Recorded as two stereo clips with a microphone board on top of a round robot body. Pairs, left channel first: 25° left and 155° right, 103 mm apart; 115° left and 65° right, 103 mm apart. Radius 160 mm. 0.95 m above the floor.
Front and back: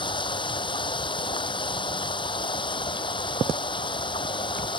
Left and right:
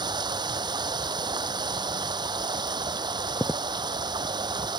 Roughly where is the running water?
Ahead.